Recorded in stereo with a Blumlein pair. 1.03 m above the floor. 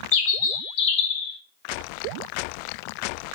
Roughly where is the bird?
Ahead left.